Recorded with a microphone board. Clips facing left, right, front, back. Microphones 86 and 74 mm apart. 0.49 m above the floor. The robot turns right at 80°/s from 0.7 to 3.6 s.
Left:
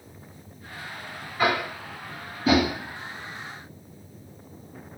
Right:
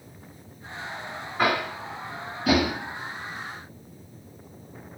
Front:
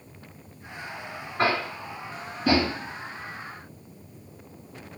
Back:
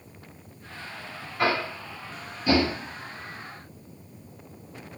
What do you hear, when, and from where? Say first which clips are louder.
1.4 s tapping: even, front 1 dB; 50° right, 2 m; by 2.7 s 60° left, 2 m